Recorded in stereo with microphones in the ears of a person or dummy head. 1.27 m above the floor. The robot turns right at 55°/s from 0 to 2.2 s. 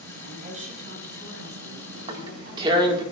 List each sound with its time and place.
0.2 s a woman speaking: 160° right, 5 m; by 3.0 s 50° right, 5 m
1.9 s tearing paper: 35° right (ahead or behind), 1.9 m; by 3.0 s 25° right (ahead or behind), 1.9 m